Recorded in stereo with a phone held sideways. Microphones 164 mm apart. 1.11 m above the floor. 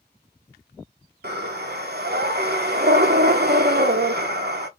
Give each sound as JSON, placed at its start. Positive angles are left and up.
{"t": 1.2, "sound": "breathing", "side_deg": -65, "distance_m": 1.1}